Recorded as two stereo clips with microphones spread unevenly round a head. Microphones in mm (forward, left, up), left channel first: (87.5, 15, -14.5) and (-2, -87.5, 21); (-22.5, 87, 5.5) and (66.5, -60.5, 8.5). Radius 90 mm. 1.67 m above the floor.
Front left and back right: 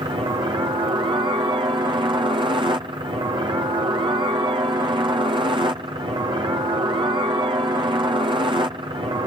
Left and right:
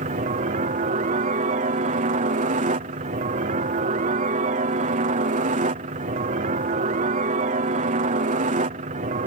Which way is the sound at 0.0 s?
75° right.